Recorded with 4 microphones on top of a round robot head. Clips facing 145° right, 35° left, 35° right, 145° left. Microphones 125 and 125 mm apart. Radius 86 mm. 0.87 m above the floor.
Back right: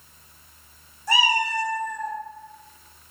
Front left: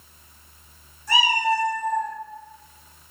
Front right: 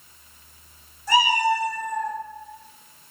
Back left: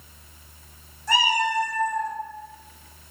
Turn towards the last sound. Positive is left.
turn(degrees=-145)